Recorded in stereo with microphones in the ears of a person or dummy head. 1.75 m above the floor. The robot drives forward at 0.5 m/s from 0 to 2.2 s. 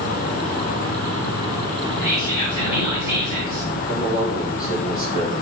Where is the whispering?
25° right (ahead or behind), 2.5 m; by 3.7 s 20° right (ahead or behind), 2.5 m.